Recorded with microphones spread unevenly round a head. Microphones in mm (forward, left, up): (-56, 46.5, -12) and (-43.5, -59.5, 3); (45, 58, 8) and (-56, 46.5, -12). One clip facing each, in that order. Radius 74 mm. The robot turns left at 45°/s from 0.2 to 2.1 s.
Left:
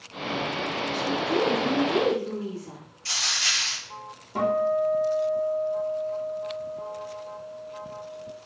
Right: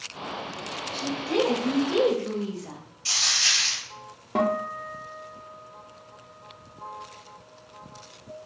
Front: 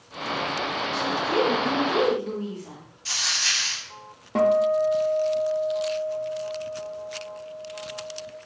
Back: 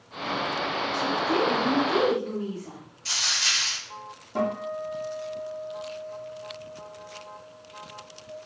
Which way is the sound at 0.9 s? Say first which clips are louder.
Even, front 1 dB; 15° right.